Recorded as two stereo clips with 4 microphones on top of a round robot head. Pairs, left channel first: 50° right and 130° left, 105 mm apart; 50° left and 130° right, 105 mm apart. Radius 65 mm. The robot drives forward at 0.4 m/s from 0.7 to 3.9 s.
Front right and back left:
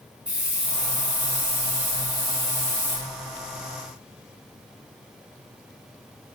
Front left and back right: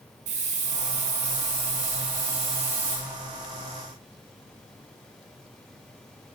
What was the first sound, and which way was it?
A hiss, 150° right.